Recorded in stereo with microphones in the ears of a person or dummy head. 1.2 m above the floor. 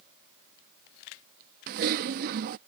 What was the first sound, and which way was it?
Typing on a keyboard, 50° right (ahead or behind).